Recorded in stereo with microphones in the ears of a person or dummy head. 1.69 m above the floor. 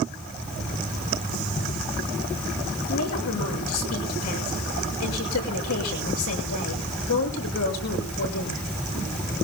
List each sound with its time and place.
2.9 s a woman speaking: 90° left, 7 m